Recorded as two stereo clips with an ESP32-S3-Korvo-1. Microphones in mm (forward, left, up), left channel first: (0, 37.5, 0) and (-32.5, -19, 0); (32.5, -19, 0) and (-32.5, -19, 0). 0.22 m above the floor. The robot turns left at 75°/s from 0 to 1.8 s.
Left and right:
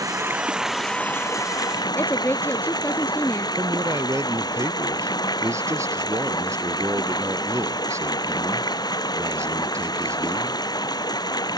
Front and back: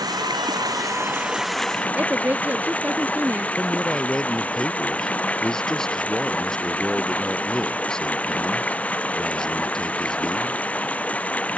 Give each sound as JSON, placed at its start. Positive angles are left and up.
{"t": 0.0, "sound": "running water", "azimuth_deg": -155}
{"t": 1.9, "sound": "a woman speaking", "azimuth_deg": 115}
{"t": 3.6, "sound": "a man speaking", "azimuth_deg": -80}